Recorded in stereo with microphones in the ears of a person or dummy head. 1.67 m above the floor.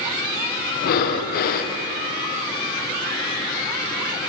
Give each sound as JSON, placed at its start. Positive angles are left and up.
{"t": 0.8, "sound": "breathing", "side_deg": 50, "distance_m": 0.5}